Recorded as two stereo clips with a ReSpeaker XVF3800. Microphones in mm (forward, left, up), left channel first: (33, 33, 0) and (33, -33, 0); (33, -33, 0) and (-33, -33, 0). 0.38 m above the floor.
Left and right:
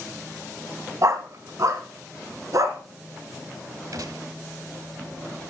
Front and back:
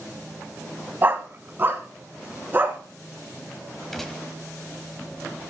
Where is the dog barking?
125° right, 1.1 m.